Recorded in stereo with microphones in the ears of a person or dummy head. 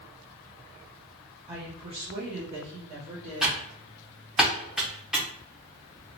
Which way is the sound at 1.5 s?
15° right (ahead or behind).